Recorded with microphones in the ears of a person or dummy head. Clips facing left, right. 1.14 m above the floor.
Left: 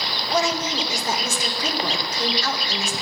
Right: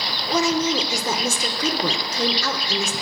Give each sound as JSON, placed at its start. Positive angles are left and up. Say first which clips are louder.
{"t": 0.3, "sound": "a woman speaking", "louder": "right 3 dB", "side_deg": -90, "distance_m": 2.5}